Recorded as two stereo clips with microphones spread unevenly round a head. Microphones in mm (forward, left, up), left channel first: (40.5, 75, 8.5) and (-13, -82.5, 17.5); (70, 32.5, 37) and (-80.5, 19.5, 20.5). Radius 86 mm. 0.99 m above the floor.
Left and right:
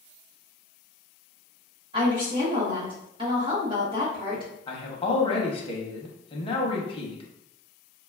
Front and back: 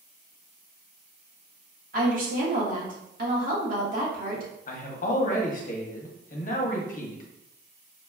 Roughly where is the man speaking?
Ahead left.